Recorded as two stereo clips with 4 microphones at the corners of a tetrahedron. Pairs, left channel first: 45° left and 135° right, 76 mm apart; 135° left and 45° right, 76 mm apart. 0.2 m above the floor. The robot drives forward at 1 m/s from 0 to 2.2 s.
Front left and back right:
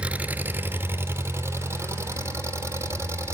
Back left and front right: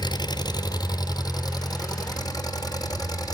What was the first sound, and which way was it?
An engine running, 150° left.